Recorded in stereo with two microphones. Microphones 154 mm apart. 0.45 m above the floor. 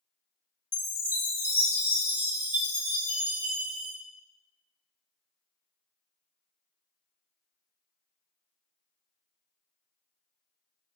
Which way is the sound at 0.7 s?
15° right (ahead or behind).